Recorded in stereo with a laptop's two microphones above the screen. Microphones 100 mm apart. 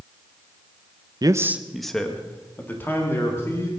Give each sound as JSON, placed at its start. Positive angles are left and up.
{"t": 1.2, "sound": "a man speaking", "side_deg": -45, "distance_m": 0.6}